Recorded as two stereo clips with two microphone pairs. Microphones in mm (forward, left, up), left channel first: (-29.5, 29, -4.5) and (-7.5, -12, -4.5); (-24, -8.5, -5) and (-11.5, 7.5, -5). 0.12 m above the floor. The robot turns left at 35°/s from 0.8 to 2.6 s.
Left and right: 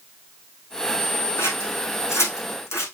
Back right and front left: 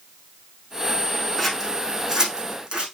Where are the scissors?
145° left, 3.5 m; by 2.9 s 100° left, 3.5 m.